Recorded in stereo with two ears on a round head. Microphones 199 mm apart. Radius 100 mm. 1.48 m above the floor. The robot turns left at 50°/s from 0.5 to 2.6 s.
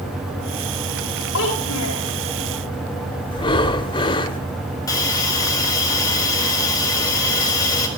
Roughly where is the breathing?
Left.